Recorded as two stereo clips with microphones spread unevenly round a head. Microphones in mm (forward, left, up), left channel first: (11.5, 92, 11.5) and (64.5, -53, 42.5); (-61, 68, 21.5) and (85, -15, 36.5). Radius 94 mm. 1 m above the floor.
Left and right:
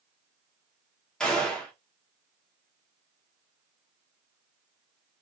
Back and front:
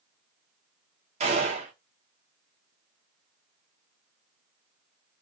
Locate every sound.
1.2 s a gunshot: 20° left, 0.8 m